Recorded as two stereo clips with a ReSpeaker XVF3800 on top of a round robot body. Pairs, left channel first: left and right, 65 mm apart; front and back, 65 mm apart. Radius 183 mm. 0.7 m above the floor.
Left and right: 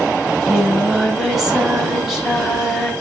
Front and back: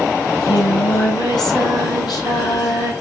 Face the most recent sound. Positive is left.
turn(degrees=0)